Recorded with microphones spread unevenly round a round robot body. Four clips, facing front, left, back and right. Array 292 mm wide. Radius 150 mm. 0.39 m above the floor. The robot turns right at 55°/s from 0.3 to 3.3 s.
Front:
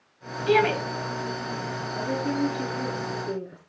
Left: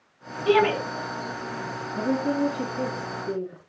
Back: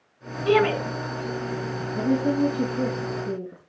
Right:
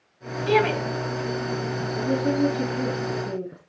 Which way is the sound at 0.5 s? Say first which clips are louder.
Left 1 dB, back 1 dB; 130° left.